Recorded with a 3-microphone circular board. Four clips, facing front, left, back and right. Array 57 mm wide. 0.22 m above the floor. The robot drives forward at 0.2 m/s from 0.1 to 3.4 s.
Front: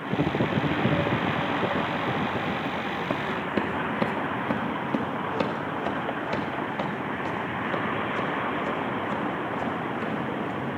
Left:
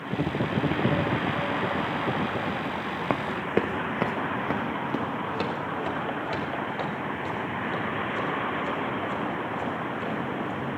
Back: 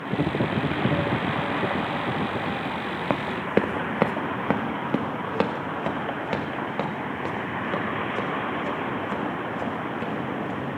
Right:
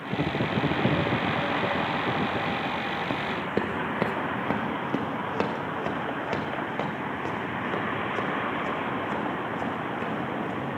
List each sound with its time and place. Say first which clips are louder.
3.1 s running footsteps: left 6 dB, back 6 dB; 135° left, 0.6 m; by 10.8 s 135° right, 4.5 m